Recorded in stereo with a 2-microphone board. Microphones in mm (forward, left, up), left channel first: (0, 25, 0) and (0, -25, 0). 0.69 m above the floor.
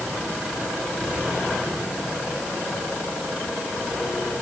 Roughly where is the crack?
No crack in this recording.